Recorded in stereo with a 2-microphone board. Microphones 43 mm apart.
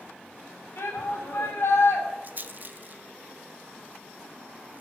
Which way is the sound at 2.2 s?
45° right (ahead or behind).